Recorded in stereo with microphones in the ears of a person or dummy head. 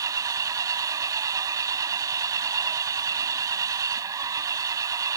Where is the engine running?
20° right (ahead or behind).